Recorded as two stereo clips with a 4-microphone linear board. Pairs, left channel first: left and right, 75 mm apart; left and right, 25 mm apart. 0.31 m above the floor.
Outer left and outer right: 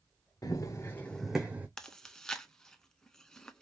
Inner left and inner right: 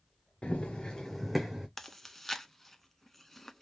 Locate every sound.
0.4 s running footsteps: 55° left (ahead or behind), 1.1 m; by 1.7 s 25° right (ahead or behind), 0.9 m
1.8 s chewing: 10° left (ahead or behind), 0.5 m